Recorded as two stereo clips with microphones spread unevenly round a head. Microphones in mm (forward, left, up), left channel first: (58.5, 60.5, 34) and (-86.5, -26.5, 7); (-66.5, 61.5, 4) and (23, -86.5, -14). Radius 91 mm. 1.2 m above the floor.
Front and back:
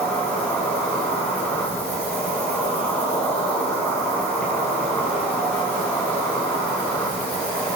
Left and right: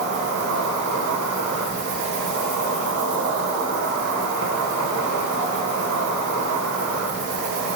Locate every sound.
0.0 s an insect: 50° right, 2.5 m